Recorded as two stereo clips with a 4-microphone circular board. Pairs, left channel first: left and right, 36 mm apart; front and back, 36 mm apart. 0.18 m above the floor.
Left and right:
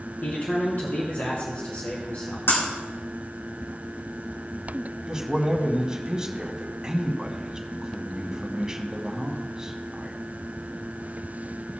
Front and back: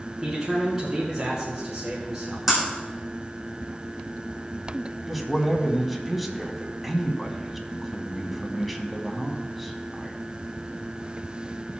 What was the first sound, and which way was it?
A man speaking, 105° left.